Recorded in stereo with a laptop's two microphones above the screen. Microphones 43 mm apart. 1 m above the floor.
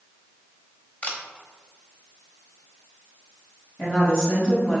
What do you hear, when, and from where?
1.0 s a camera shutter: 35° left (ahead or behind), 0.8 m
3.8 s a woman speaking: 25° left (ahead or behind), 1.2 m